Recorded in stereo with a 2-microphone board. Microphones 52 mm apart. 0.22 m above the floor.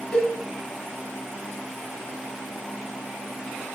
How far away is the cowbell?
About 0.9 m.